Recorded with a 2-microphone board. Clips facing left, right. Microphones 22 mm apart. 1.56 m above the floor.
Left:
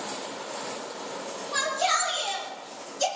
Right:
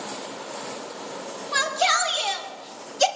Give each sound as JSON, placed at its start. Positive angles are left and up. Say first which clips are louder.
{"t": 1.5, "sound": "a shout", "louder": "right 4 dB", "side_deg": -30, "distance_m": 3.0}